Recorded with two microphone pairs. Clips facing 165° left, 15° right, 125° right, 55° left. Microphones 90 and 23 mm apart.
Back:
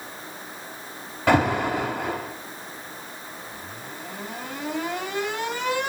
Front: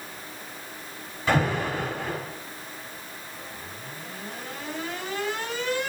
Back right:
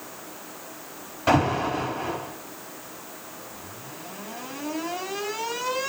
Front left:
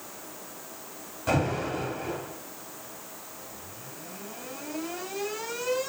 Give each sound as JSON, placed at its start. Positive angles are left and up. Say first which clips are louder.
{"t": 1.3, "sound": "an alarm", "louder": "back 4 dB, back right 6 dB", "azimuth_deg": 180, "distance_m": 5.5}